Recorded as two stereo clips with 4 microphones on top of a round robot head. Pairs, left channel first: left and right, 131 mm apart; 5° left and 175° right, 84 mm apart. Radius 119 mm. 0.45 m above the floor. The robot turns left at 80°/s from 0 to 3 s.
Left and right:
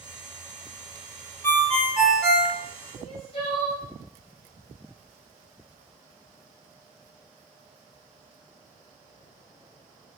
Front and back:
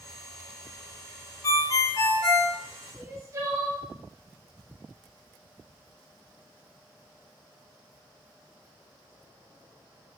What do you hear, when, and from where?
1.4 s a ringtone: 30° left, 0.6 m; by 2.5 s 60° right, 0.6 m
3.0 s crying: 135° left, 0.9 m; by 3.8 s 130° left, 0.9 m